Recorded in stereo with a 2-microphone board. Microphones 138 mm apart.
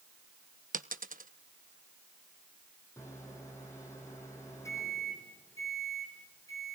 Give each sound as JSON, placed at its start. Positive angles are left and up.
{"t": 0.7, "sound": "a dropped coin", "side_deg": -80, "distance_m": 0.8}
{"t": 3.0, "sound": "a microwave", "side_deg": 20, "distance_m": 4.5}